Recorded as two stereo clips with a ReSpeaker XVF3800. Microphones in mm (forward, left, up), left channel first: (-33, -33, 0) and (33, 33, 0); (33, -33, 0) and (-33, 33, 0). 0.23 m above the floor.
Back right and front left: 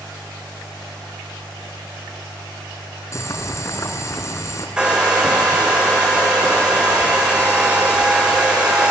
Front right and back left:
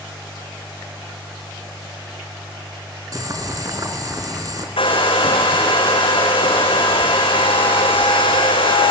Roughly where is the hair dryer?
Ahead right.